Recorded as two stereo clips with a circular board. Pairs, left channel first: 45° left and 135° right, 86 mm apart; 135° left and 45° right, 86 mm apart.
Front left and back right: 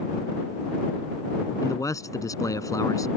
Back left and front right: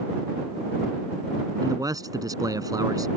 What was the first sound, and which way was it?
A man speaking, straight ahead.